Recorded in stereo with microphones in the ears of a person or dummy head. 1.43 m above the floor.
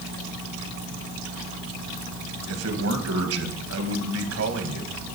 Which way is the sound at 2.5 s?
85° right.